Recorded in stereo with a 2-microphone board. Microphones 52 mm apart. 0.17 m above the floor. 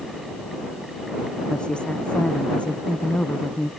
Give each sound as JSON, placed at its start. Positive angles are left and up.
{"t": 1.5, "sound": "a woman speaking", "side_deg": 20}